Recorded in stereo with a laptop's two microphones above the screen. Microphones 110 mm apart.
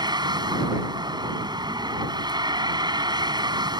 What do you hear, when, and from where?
0.0 s a vehicle: 40° right (ahead or behind)